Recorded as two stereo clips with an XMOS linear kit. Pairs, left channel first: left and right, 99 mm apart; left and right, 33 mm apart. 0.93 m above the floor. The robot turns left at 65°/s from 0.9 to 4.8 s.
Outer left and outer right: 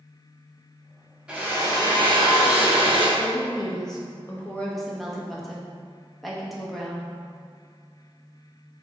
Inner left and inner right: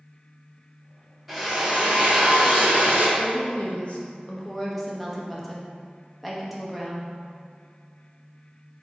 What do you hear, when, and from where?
1.3 s a drill: 10° right, 1.1 m; by 3.1 s 125° right, 1.1 m
3.2 s a woman speaking: 110° left, 0.9 m; by 7.1 s 5° left, 0.9 m